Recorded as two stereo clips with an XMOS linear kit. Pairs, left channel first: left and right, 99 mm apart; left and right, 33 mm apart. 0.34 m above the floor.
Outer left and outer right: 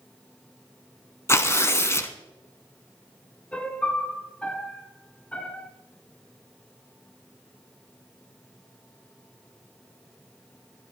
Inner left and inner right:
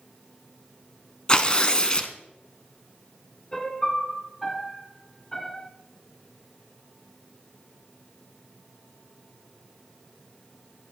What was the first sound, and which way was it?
Tearing paper, 30° left (ahead or behind).